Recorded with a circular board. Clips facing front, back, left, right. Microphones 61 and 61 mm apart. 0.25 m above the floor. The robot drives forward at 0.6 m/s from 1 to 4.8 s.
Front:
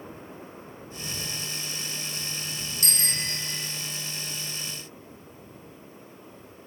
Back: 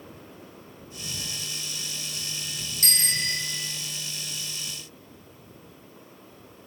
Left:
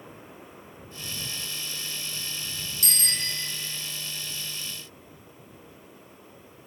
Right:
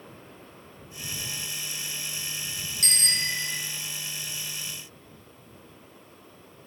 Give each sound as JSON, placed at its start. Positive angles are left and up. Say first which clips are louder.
{"t": 2.8, "sound": "a bicycle bell", "louder": "back 4 dB, right 3 dB", "azimuth_deg": -135, "distance_m": 3.5}